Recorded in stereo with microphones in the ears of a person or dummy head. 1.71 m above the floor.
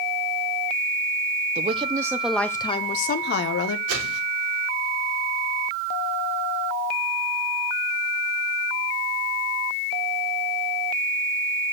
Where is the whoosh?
70° right (ahead or behind), 4 m.